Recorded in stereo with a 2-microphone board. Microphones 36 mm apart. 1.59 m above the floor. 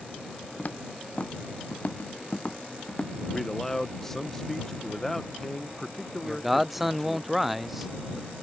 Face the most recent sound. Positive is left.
turn(degrees=0)  # may be behind; listen again after turning